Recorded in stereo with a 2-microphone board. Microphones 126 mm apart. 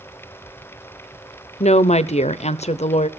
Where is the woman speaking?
65° left (ahead or behind), 0.7 m.